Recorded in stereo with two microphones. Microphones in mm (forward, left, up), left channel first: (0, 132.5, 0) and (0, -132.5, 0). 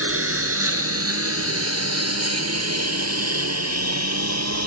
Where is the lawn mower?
60° right (ahead or behind); by 4.7 s 85° right.